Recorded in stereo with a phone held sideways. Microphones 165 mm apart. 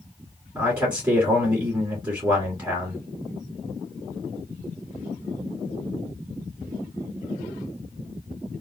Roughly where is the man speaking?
Centre.